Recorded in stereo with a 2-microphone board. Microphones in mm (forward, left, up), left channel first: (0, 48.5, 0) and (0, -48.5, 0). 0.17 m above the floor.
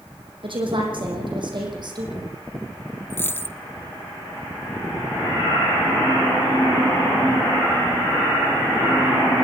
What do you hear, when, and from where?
0.4 s a woman speaking: 60° right (ahead or behind), 6.5 m; by 2.3 s 45° right (ahead or behind), 6.5 m
3.1 s a dropped coin: 20° left (ahead or behind), 0.6 m